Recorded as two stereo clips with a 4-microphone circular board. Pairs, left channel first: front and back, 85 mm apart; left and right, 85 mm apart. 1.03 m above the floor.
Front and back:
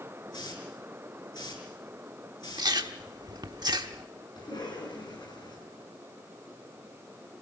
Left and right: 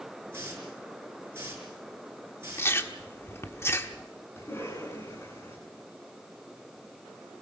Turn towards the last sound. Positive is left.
turn(degrees=30)